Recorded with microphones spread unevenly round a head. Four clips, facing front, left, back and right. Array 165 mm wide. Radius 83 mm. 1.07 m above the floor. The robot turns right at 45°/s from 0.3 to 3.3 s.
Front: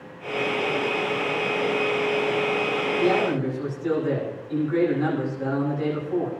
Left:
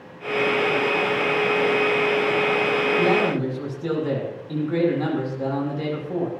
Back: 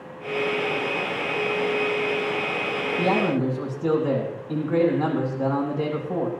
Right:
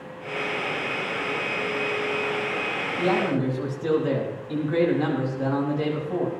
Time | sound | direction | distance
3.0 | a man speaking | 155° left | 10 m